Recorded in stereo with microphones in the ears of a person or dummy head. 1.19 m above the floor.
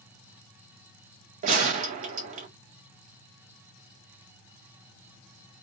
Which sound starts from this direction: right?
A gunshot, at 1.4 s.